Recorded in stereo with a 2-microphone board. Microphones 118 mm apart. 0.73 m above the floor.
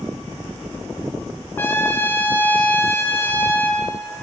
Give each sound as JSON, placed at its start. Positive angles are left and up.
{"t": 1.6, "sound": "a trumpet", "side_deg": 20, "distance_m": 4.0}